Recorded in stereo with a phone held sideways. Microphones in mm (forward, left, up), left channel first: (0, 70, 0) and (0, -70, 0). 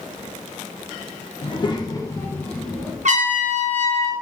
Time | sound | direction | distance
1.4 | a child speaking | 40° left (ahead or behind) | 0.8 m
3.0 | a trumpet | 60° right (ahead or behind) | 0.9 m